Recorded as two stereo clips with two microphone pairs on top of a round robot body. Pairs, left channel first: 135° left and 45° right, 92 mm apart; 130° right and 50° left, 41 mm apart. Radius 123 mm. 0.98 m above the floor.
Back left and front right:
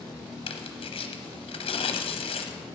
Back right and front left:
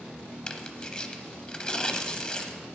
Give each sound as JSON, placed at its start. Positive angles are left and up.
{"t": 0.5, "sound": "tearing paper", "azimuth_deg": 160, "distance_m": 0.8}